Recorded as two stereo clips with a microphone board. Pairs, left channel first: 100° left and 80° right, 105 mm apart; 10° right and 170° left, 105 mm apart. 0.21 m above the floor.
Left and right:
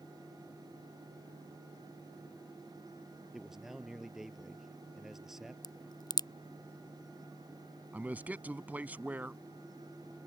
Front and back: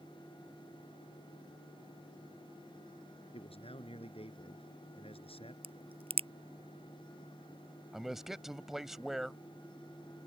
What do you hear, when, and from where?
3.3 s a man speaking: 5° left
5.6 s a crack: 150° left
7.9 s a man speaking: 110° right